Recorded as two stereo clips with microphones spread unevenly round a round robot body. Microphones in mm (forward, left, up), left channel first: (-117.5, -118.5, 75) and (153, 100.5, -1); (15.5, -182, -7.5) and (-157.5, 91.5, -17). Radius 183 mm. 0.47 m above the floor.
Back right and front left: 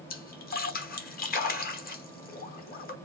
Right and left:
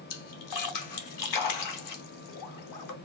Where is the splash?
70° right, 1.0 m.